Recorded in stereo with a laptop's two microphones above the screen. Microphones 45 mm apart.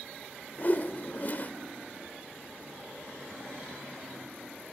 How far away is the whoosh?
About 0.9 m.